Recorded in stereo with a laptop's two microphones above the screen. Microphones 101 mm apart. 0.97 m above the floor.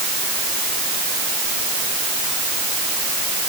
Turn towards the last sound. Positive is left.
No sound to turn to.